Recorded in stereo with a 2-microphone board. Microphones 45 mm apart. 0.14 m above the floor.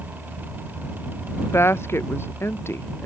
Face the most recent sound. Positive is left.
turn(degrees=65)  # may be behind; listen again after turning